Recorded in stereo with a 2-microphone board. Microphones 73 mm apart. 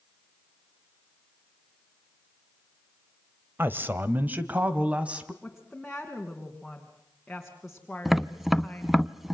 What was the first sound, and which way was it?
A man speaking, 30° right (ahead or behind).